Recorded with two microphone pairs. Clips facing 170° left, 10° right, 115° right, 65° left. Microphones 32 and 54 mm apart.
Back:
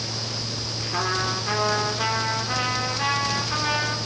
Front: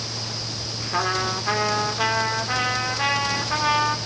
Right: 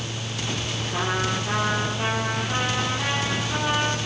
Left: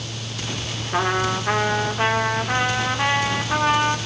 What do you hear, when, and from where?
0.9 s a trumpet: 60° left, 3 m